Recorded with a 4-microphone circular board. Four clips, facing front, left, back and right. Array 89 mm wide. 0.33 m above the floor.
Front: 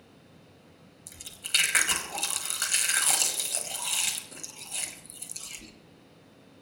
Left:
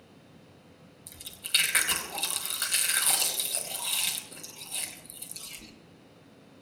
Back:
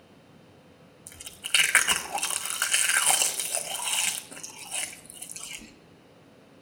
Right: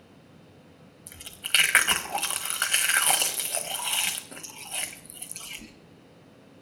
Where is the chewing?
125° right, 1.5 m.